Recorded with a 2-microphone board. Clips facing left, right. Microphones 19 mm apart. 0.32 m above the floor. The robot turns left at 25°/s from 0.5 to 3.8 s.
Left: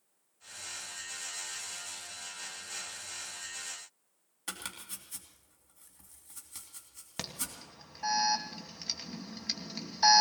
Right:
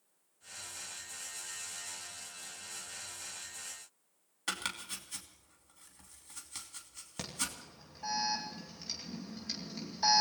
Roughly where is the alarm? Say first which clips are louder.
Right 1 dB; left.